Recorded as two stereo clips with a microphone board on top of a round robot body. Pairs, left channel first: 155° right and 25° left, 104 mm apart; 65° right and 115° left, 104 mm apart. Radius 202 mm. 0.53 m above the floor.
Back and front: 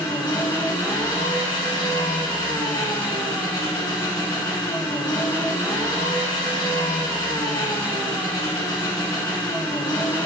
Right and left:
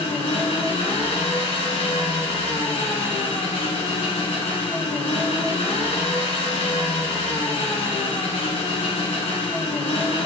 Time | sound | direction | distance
0.0 | an engine running | 105° right | 1.8 m